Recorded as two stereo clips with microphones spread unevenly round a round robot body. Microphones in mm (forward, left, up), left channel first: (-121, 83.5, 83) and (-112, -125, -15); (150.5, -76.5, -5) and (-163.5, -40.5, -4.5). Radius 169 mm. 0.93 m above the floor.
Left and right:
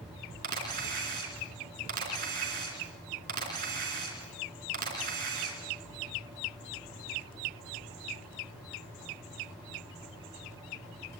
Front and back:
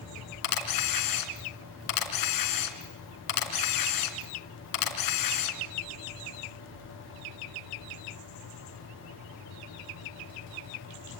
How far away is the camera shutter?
About 3.5 m.